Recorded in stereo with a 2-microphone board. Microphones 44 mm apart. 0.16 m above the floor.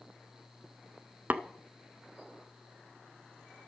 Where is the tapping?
40° right (ahead or behind), 0.6 m.